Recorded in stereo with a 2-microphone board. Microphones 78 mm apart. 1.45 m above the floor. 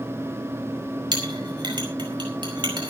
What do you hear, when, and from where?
1.1 s a clink: 80° right, 4.5 m